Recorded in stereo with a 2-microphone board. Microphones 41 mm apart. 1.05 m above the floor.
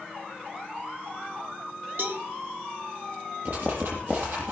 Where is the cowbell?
55° right (ahead or behind), 3 m.